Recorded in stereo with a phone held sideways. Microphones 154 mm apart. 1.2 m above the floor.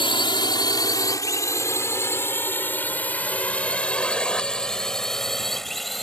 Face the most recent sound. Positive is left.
turn(degrees=0)  # may be behind; listen again after turning